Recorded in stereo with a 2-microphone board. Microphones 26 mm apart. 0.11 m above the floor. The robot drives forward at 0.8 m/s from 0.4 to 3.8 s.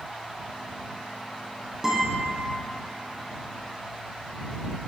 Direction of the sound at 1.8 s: 20° right (ahead or behind).